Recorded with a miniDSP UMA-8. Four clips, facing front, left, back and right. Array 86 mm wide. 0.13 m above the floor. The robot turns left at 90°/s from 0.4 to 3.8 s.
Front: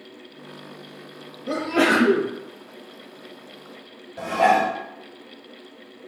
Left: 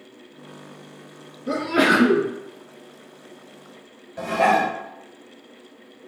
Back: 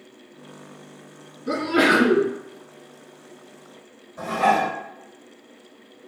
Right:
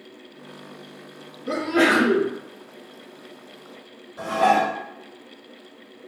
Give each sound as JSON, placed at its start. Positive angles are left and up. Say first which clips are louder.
{"t": 1.5, "sound": "a sneeze", "louder": "even, back 1 dB", "azimuth_deg": -170, "distance_m": 1.3}
{"t": 4.2, "sound": "dishes clattering", "louder": "even, front 2 dB", "azimuth_deg": 60, "distance_m": 1.7}